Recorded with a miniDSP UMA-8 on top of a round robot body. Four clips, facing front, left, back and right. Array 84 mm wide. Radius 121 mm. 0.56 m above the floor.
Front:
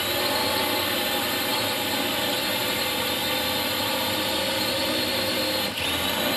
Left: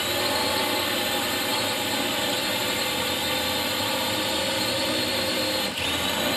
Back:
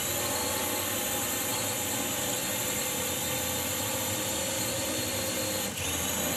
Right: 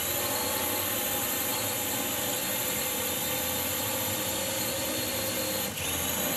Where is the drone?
45° left.